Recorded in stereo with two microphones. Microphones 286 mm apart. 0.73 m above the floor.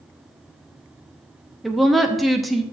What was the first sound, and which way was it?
A woman speaking, centre (ahead or behind).